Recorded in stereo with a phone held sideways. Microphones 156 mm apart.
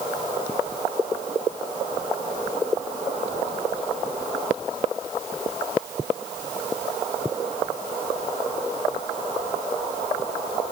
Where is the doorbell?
No doorbell in this recording.